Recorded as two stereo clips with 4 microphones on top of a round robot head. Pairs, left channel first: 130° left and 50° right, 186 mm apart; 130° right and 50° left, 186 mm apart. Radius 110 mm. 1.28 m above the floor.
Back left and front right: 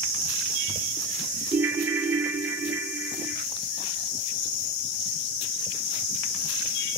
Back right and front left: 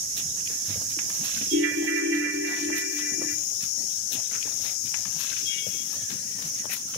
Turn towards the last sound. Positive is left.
turn(degrees=30)